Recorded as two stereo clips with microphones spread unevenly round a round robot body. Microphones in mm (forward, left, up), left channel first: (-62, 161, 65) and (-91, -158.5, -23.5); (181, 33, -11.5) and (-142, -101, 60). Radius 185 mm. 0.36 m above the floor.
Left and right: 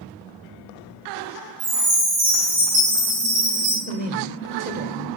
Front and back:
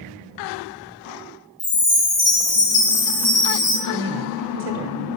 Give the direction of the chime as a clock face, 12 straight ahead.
1 o'clock.